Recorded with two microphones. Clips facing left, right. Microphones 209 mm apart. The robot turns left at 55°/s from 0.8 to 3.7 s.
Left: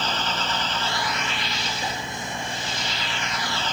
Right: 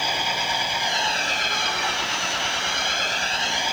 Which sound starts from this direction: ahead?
An engine running, at 0.0 s.